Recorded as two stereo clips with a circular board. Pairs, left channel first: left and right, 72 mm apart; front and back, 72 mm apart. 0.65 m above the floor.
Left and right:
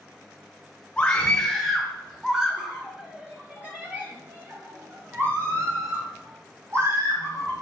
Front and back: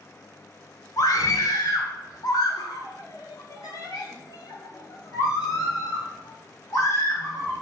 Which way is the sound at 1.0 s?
15° left.